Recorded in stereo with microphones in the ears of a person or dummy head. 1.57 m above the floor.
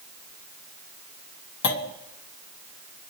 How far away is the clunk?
About 2.0 m.